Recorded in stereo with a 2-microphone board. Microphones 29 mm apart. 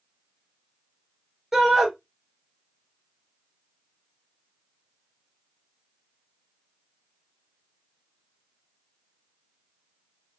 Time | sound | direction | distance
1.5 | a shout | 10° right (ahead or behind) | 2.5 m